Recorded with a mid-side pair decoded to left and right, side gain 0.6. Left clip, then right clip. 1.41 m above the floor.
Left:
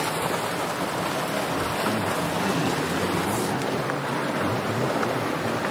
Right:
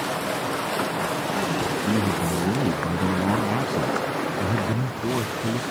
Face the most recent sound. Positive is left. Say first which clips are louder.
# right 1 dB
turn(degrees=-40)